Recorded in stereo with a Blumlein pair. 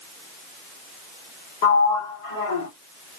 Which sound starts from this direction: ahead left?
A sliding door, at 1.6 s.